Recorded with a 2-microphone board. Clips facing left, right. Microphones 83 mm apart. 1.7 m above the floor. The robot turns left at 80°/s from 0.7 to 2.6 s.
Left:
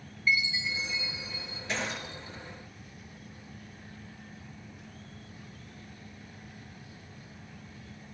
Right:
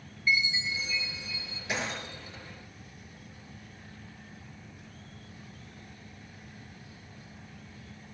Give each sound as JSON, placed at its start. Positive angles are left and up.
{"t": 0.3, "sound": "a chime", "azimuth_deg": -160, "distance_m": 6.0}
{"t": 1.7, "sound": "breaking glass", "side_deg": -10, "distance_m": 8.0}